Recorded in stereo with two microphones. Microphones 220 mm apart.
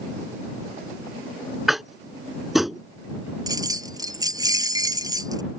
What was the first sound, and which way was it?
Tapping, centre (ahead or behind).